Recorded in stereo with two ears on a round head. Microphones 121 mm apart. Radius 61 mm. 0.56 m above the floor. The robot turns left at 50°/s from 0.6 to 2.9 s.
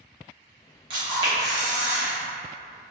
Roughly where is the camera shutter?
Right.